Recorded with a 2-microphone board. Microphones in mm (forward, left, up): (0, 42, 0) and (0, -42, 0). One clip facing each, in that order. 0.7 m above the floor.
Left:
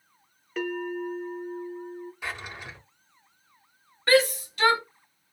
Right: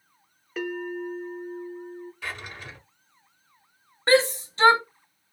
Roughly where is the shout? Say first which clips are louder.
Right 1 dB; right.